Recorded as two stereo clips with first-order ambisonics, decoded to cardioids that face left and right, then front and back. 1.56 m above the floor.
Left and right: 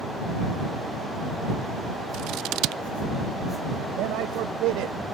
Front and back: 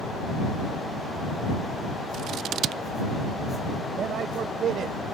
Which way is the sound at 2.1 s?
125° right.